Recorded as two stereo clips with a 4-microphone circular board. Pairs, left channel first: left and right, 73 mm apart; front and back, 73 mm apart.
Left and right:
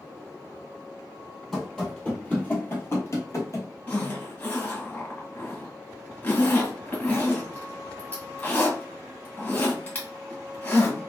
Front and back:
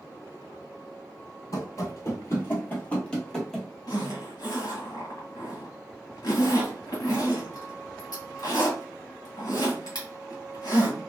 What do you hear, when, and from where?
1.5 s running footsteps: 5° left, 1.5 m; by 3.7 s 90° left, 1.4 m
3.9 s a zipper: 25° left, 1.8 m